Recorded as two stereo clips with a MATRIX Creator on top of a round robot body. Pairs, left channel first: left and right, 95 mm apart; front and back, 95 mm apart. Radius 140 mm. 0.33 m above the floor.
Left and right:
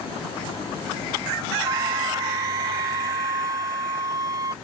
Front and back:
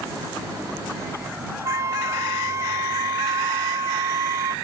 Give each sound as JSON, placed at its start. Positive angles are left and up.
{"t": 1.6, "sound": "a flute", "azimuth_deg": -130}